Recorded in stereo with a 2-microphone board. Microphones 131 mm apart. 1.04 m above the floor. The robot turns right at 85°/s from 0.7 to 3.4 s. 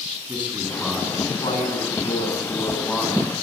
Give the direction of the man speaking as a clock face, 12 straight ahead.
12 o'clock.